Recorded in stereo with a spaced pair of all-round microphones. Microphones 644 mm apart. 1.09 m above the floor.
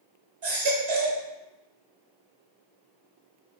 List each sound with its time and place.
0.4 s a baby crying: 45° right (ahead or behind), 0.6 m